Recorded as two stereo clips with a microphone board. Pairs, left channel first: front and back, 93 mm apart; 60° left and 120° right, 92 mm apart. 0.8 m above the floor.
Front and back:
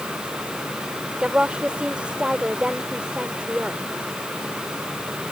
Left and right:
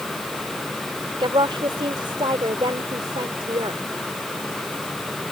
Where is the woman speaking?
100° right.